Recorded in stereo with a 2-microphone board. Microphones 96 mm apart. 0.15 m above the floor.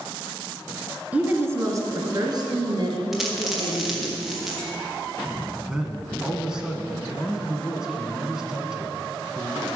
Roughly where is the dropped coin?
Centre.